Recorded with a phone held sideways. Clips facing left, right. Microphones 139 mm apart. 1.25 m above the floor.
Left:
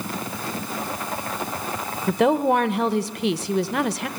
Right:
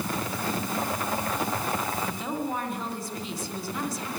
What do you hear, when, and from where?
2.1 s a woman speaking: 70° left (ahead or behind), 0.8 m